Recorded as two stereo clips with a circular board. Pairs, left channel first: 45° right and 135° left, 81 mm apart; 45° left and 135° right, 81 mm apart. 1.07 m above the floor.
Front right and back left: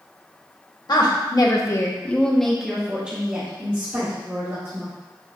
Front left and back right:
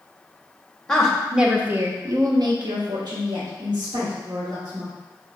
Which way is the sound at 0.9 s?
35° right.